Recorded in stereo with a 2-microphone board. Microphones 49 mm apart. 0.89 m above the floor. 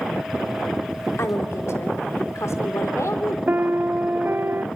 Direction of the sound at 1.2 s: 65° left (ahead or behind).